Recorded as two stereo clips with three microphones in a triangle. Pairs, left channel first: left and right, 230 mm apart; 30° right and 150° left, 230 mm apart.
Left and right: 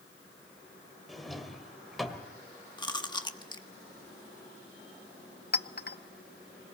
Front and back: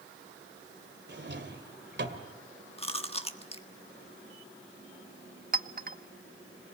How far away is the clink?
About 0.6 m.